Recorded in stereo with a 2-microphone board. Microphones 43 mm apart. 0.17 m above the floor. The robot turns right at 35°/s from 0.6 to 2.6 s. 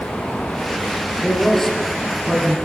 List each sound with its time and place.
1.2 s a man speaking: 160° left, 6 m; by 2.5 s 155° right, 6 m